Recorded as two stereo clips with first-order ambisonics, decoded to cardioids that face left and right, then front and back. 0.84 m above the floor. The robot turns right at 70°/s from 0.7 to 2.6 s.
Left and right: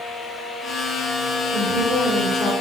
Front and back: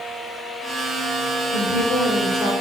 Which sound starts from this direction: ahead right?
A woman speaking, at 1.5 s.